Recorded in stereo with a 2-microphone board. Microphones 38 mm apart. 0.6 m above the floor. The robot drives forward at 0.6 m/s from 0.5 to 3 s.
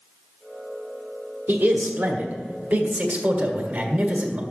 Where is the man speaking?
55° right (ahead or behind), 1.3 m; by 4.4 s 40° right (ahead or behind), 1.7 m.